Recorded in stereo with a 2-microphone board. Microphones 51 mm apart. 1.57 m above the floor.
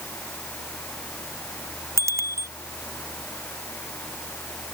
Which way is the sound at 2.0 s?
75° right (ahead or behind).